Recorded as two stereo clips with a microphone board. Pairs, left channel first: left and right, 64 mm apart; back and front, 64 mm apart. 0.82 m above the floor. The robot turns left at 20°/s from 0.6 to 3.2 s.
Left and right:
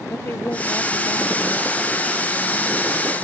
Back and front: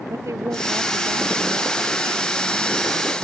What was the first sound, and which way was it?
A woman speaking, 35° left.